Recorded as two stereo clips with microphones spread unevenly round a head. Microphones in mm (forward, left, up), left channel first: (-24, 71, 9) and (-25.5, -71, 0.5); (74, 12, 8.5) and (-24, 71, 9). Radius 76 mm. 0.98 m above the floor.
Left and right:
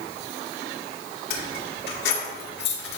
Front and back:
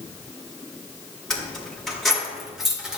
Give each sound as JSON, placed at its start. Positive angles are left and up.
{"t": 1.3, "sound": "keys jangling", "azimuth_deg": 55, "distance_m": 3.0}